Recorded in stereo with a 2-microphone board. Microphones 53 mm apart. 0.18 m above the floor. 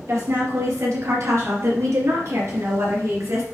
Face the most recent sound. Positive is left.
turn(degrees=-60)  # may be behind; listen again after turning